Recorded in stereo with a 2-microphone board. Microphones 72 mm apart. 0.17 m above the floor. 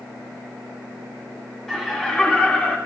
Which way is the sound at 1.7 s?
Centre (ahead or behind).